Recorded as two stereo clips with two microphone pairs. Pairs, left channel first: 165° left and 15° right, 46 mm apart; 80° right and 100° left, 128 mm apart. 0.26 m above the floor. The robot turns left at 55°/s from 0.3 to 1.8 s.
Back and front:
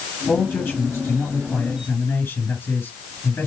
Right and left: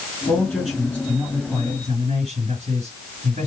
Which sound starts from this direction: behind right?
A man speaking, at 0.3 s.